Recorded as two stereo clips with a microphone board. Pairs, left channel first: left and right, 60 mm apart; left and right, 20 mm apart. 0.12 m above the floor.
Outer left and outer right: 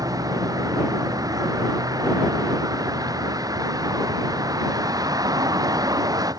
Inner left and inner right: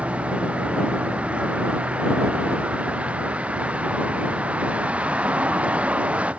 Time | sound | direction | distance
0.0 | a vehicle | 80° right | ?